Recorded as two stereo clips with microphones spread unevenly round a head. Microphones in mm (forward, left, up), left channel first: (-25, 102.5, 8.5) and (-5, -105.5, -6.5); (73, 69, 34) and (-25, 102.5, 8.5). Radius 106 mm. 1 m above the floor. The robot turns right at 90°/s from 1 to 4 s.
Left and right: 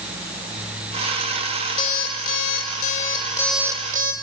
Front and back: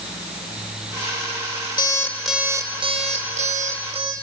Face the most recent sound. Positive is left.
turn(degrees=-135)